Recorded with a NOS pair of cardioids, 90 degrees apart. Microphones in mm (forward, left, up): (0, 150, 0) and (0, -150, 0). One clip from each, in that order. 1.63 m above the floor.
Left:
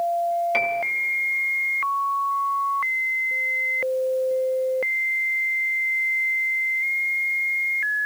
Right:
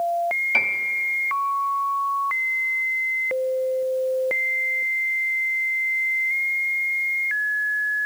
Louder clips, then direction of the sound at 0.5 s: Right 1 dB; 5° left.